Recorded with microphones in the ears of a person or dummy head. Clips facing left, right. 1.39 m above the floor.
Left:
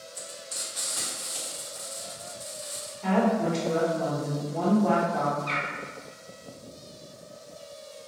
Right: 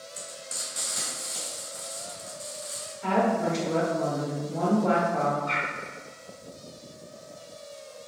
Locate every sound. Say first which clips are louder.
0.1 s frying: even; 30° right (ahead or behind), 1.7 m
3.0 s a woman speaking: left 1 dB; 5° right (ahead or behind), 1.0 m
5.5 s a bird: right 1 dB; 45° left (ahead or behind), 0.8 m